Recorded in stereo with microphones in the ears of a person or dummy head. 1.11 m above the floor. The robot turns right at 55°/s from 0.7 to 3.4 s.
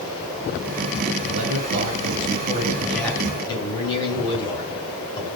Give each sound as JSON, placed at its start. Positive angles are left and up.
{"t": 1.2, "sound": "a man speaking", "azimuth_deg": -95, "distance_m": 7.0}